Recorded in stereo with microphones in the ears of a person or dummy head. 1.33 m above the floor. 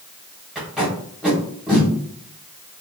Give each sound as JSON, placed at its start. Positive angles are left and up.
{"t": 0.6, "sound": "tape being pulled", "side_deg": -5, "distance_m": 0.9}